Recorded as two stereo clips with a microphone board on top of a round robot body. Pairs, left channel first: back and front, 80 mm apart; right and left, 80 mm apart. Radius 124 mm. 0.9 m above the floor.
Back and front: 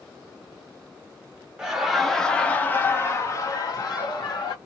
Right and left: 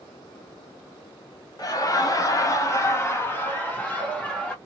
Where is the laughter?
75° right, 1.3 m; by 4.5 s 165° right, 1.7 m.